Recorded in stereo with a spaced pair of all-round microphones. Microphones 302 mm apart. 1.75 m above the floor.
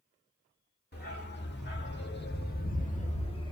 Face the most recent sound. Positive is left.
turn(degrees=15)  # may be behind; listen again after turning